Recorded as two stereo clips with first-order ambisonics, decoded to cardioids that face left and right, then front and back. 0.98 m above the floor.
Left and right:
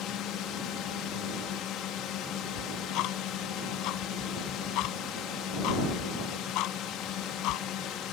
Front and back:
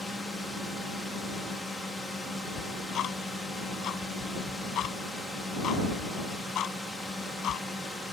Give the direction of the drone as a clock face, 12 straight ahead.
9 o'clock.